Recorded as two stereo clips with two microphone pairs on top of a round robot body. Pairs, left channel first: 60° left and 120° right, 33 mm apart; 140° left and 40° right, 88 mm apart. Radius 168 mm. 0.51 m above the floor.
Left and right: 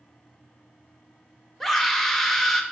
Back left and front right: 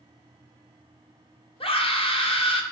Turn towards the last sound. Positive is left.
turn(degrees=145)